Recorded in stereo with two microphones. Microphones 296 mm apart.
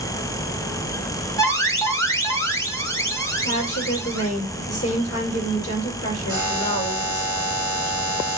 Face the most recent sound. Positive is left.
turn(degrees=70)  # may be behind; listen again after turning